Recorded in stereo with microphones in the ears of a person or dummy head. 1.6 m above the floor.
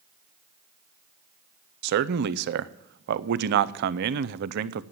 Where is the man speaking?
55° right (ahead or behind), 0.5 m.